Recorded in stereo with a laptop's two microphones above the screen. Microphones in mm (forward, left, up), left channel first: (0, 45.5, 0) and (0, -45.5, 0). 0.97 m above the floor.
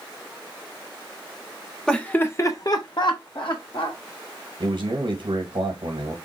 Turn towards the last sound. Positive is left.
turn(degrees=-65)  # may be behind; listen again after turning